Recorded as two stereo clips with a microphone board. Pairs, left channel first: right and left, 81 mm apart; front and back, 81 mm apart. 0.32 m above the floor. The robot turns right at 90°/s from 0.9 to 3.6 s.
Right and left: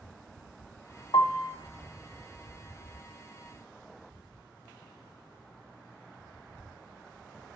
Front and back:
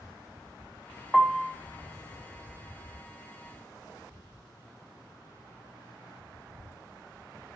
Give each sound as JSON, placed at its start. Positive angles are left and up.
{"t": 1.1, "sound": "a piano", "azimuth_deg": -90, "distance_m": 0.5}